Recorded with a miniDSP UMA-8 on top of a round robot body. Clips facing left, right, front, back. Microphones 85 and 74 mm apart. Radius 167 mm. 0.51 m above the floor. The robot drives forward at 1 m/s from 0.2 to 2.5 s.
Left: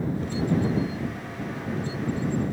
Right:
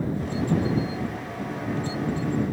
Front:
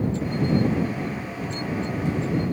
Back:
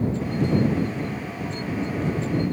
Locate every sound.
Only background noise.